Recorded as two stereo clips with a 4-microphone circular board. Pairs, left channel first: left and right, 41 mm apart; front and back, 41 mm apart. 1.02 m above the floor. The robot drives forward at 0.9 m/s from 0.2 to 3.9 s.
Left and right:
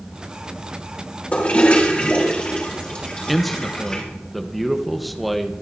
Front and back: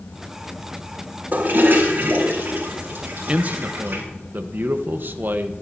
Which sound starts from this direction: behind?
A man speaking, at 3.3 s.